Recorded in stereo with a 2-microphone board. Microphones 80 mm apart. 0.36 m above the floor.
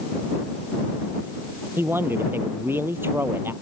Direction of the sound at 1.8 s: 30° right (ahead or behind).